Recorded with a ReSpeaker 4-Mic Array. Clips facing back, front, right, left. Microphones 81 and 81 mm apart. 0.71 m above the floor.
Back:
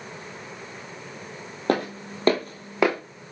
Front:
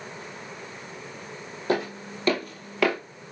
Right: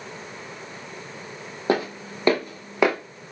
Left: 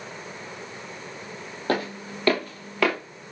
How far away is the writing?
No writing in this recording.